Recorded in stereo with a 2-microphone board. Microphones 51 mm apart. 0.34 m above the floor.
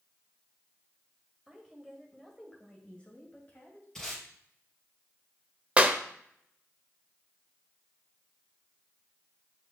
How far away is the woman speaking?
About 1.5 m.